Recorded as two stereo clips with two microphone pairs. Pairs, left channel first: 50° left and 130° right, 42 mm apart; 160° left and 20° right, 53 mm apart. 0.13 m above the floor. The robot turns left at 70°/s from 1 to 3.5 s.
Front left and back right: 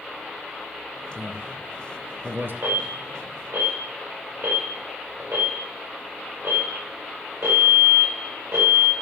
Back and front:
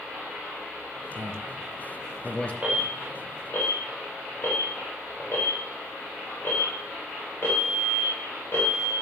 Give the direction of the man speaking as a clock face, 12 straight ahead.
1 o'clock.